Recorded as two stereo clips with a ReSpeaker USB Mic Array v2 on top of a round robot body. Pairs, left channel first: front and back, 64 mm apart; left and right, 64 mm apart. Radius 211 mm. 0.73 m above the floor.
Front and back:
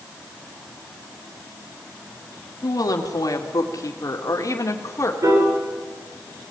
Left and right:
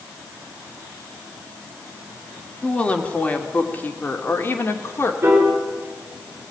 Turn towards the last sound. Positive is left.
turn(degrees=-150)